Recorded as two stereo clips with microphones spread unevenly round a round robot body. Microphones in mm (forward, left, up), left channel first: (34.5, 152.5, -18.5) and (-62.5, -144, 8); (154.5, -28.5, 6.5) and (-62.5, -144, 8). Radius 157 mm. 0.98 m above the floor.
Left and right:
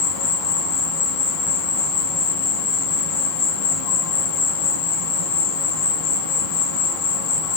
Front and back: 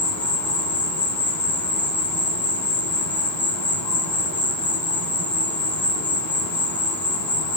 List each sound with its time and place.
0.0 s an insect: 110° left, 1.3 m